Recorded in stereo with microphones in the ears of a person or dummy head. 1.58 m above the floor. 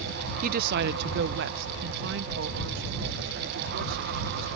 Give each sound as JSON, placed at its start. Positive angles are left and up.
{"t": 0.4, "sound": "a woman speaking", "side_deg": -50}